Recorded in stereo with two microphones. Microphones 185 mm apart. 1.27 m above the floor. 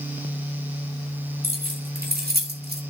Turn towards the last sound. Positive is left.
turn(degrees=-60)  # may be behind; listen again after turning